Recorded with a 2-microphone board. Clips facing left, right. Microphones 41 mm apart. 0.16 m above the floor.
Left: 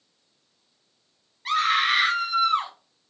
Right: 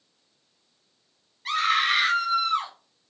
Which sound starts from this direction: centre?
A scream, at 1.4 s.